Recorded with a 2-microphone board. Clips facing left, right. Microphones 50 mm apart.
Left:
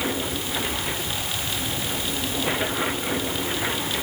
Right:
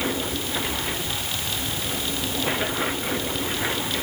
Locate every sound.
Only background noise.